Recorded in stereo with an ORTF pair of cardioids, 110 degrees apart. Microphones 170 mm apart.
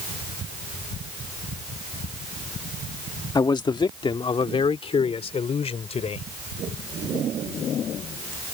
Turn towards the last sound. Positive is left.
turn(degrees=35)